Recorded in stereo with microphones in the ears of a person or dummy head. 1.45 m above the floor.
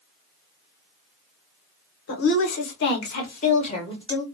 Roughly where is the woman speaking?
Left.